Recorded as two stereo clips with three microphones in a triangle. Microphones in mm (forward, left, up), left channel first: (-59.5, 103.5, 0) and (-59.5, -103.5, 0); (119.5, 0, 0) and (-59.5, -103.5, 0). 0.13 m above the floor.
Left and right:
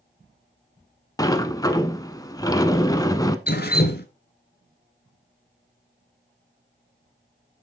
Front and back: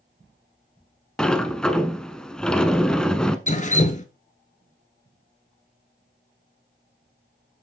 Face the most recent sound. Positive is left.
turn(degrees=70)